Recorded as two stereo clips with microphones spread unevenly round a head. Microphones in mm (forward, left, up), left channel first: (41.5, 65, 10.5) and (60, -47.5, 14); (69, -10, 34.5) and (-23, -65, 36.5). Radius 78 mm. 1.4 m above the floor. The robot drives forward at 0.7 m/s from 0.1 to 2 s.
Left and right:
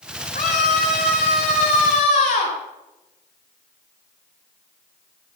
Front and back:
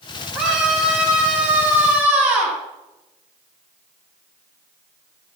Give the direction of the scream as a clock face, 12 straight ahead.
8 o'clock.